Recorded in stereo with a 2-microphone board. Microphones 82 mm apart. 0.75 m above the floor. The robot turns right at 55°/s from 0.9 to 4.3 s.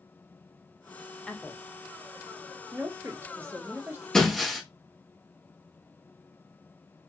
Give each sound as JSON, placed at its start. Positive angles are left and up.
{"t": 1.3, "sound": "a woman speaking", "side_deg": 10, "distance_m": 0.5}
{"t": 4.1, "sound": "breaking glass", "side_deg": 5, "distance_m": 1.2}